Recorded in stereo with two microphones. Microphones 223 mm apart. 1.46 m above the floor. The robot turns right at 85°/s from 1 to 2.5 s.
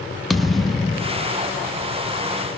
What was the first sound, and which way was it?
A thud, centre (ahead or behind).